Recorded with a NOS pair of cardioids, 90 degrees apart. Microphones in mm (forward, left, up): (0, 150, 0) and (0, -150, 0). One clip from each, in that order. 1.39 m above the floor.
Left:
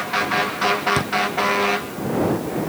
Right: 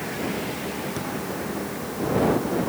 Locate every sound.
1.0 s a thud: 65° left